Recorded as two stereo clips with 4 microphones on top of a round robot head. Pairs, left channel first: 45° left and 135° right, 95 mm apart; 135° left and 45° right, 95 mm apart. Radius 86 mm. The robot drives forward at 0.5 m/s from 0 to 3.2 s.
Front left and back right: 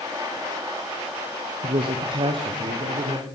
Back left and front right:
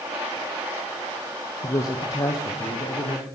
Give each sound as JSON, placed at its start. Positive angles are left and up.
{"t": 1.6, "sound": "a man speaking", "azimuth_deg": -170, "distance_m": 1.0}